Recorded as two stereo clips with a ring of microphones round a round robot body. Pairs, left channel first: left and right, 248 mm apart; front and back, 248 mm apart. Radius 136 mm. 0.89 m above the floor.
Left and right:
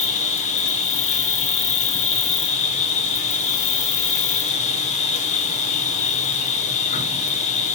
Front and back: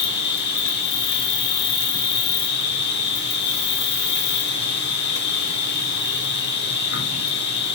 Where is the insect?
35° left, 0.7 m.